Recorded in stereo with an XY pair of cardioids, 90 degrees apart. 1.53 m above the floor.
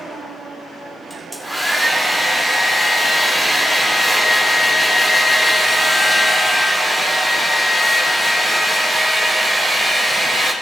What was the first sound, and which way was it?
A hair dryer, 10° left.